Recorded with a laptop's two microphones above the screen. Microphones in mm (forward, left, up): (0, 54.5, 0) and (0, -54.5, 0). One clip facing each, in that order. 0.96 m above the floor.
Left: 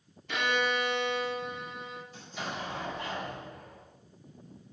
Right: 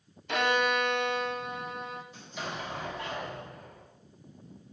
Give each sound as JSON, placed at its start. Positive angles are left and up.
{"t": 0.3, "sound": "a violin", "side_deg": -50, "distance_m": 1.1}
{"t": 2.1, "sound": "an explosion", "side_deg": -20, "distance_m": 4.5}